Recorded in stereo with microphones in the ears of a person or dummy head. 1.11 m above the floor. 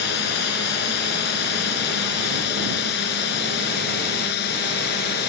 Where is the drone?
60° left (ahead or behind).